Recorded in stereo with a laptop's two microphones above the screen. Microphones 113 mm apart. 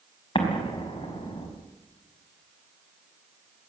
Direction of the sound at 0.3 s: 55° left (ahead or behind).